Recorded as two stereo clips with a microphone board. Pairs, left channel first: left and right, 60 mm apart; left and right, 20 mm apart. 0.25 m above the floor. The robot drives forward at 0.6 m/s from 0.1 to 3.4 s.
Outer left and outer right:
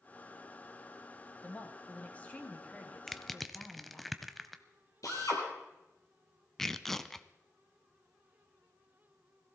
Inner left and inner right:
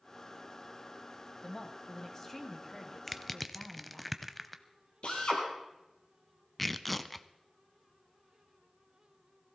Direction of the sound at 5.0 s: 65° left (ahead or behind).